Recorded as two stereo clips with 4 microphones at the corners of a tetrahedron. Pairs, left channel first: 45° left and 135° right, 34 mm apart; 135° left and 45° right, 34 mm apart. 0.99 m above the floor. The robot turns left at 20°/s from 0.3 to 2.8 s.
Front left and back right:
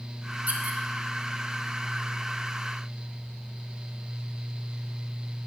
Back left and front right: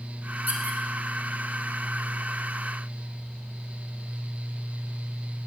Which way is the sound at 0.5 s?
90° right.